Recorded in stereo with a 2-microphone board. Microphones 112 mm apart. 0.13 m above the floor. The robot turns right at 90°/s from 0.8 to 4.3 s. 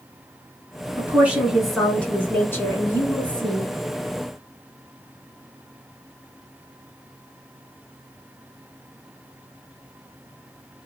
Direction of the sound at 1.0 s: 20° right (ahead or behind).